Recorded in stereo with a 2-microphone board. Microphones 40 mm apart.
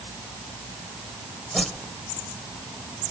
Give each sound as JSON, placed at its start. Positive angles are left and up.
{"t": 1.5, "sound": "a whoosh", "side_deg": 5, "distance_m": 1.4}